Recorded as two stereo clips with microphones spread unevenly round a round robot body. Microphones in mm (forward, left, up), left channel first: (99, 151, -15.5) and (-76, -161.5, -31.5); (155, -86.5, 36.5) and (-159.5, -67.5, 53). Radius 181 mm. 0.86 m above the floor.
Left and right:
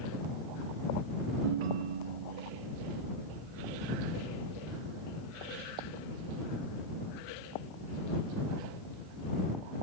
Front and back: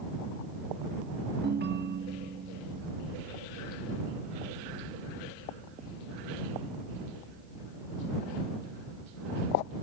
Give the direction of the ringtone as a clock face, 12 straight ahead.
4 o'clock.